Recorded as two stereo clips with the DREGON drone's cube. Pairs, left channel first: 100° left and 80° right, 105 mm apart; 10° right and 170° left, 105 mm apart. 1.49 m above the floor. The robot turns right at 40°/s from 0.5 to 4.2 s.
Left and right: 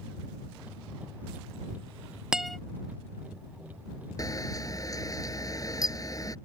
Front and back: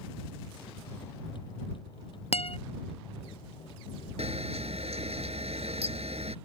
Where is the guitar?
5° left; by 2.6 s 15° left.